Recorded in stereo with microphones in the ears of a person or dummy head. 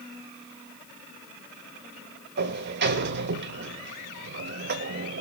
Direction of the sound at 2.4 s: 60° right (ahead or behind).